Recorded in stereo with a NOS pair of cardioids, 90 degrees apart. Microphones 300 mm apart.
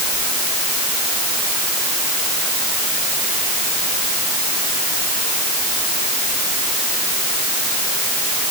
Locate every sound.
Only background noise.